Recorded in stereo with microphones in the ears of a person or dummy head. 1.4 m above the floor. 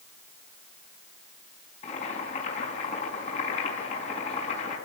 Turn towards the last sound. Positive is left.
turn(degrees=45)  # may be behind; listen again after turning